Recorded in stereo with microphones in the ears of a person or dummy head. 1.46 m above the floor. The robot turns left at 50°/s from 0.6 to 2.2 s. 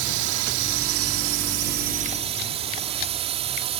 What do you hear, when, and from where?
0.0 s a drone: 65° right; by 3.8 s 145° right